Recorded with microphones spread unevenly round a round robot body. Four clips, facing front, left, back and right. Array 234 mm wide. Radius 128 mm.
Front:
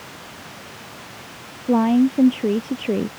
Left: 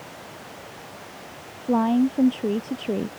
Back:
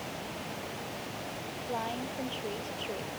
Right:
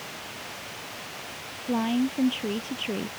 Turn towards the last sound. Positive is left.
turn(degrees=20)